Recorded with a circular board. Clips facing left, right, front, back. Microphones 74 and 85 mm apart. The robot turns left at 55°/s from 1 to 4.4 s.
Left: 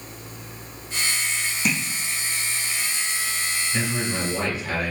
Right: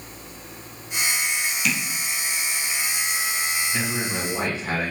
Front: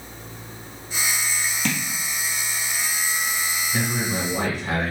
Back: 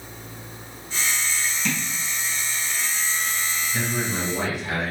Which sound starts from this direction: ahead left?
Tapping, at 1.6 s.